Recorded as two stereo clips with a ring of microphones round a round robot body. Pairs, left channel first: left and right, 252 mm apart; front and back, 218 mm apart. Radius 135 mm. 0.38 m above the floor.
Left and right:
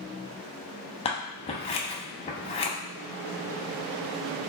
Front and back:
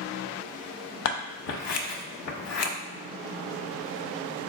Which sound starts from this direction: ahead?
Scissors, at 1.1 s.